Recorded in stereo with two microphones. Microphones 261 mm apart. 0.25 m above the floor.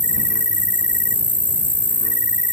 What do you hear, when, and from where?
0.0 s an insect: 30° left (ahead or behind)